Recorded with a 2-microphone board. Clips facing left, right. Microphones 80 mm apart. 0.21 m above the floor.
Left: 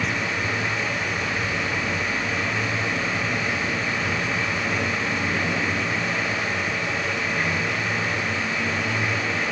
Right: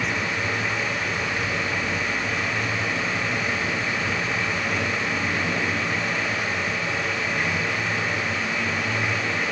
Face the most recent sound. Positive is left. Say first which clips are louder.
# even
turn(degrees=5)  # may be behind; listen again after turning